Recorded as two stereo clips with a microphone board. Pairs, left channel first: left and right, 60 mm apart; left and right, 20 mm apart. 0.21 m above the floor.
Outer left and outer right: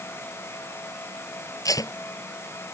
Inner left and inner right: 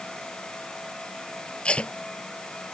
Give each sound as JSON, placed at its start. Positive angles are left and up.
{"t": 1.6, "sound": "tape being pulled", "side_deg": 75}